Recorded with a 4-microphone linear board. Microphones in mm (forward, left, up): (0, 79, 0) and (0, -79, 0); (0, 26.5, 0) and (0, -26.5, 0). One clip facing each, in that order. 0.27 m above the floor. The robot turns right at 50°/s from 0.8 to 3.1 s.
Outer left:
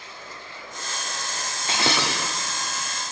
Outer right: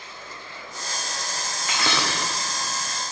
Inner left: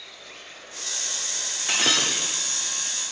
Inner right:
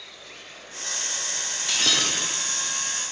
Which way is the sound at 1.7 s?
150° left.